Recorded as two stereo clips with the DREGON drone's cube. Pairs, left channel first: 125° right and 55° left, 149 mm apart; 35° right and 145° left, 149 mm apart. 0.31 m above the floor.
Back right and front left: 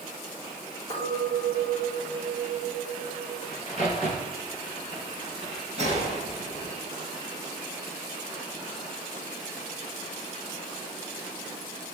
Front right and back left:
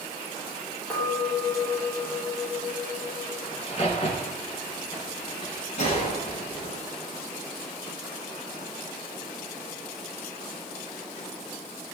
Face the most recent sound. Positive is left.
turn(degrees=10)